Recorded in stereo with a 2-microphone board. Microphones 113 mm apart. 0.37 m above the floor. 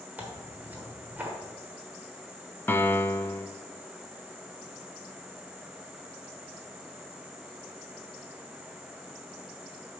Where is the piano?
20° left (ahead or behind), 0.5 m.